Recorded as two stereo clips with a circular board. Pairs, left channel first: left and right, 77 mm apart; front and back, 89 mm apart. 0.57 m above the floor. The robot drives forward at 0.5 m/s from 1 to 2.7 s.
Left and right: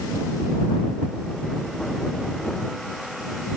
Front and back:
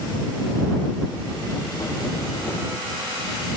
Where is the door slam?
No door slam in this recording.